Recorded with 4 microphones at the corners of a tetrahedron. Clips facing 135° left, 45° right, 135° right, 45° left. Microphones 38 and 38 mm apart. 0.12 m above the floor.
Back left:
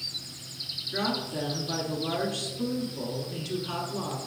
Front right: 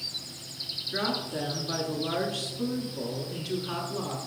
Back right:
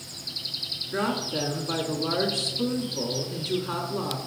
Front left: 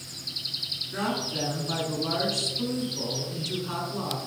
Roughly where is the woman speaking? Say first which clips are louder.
Back left 1 dB, back right 3 dB; right.